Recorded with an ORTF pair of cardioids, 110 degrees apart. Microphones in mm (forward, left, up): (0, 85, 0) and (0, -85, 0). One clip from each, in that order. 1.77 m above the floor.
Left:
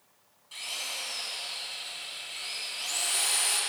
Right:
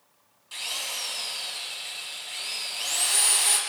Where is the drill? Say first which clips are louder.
Right 4 dB; 40° right, 1.6 m.